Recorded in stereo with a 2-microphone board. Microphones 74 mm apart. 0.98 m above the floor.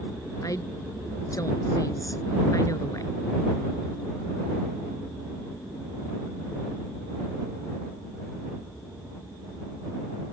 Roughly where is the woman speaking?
Left.